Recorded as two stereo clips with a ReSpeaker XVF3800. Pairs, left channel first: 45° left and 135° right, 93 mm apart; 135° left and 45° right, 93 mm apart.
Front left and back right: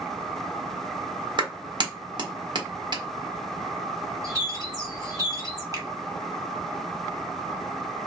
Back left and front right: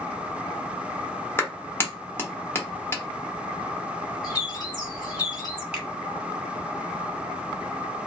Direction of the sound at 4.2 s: 175° left.